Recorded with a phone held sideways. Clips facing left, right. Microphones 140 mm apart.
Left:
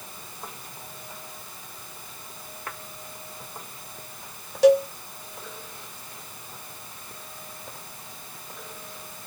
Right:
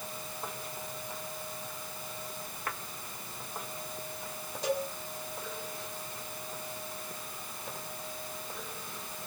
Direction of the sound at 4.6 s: 65° left (ahead or behind).